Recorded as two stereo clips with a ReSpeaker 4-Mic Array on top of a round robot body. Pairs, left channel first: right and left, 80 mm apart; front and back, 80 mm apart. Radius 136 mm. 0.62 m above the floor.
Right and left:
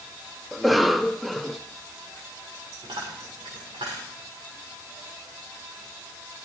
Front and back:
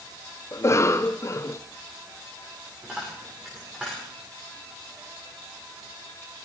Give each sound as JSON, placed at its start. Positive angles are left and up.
{"t": 0.5, "sound": "a cough", "azimuth_deg": 0, "distance_m": 0.7}
{"t": 2.8, "sound": "a dropped coin", "azimuth_deg": 100, "distance_m": 6.5}